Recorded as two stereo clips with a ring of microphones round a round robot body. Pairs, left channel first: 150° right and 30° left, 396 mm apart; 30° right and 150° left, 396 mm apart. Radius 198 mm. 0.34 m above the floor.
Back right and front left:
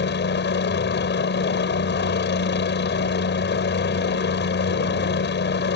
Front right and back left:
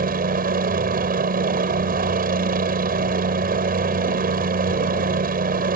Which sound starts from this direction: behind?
A helicopter, at 0.0 s.